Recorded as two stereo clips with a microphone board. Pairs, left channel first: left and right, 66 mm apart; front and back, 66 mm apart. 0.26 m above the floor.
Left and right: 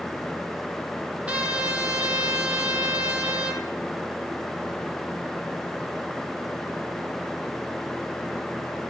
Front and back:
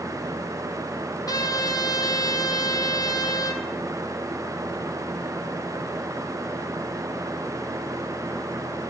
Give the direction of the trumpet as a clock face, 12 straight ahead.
1 o'clock.